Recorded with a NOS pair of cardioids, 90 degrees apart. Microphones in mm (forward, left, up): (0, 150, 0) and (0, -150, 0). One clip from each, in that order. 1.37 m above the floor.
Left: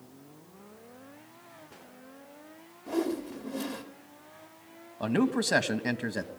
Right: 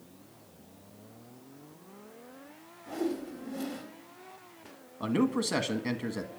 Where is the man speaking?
20° left, 1.4 m.